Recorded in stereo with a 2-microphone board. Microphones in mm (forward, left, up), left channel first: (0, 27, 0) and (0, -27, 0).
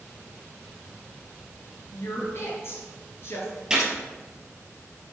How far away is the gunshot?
About 1.8 m.